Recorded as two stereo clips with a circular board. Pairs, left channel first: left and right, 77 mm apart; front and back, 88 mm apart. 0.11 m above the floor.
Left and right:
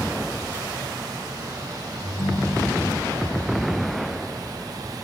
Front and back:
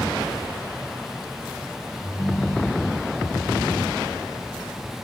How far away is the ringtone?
About 3.5 m.